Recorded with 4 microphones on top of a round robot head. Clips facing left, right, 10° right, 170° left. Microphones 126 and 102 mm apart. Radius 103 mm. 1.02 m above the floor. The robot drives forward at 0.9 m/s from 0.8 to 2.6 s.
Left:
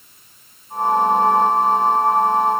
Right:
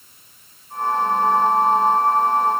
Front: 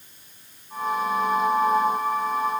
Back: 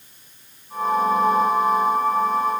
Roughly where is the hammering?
I don't hear hammering.